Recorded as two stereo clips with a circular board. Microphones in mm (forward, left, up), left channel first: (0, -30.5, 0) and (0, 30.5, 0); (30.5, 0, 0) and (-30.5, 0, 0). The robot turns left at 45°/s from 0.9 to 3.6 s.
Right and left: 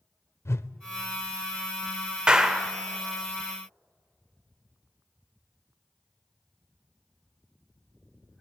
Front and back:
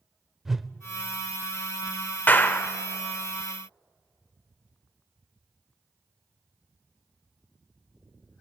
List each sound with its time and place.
0.5 s a whoosh: 100° right, 0.7 m
2.3 s a clap: 30° left, 1.0 m; by 2.7 s 10° left, 1.0 m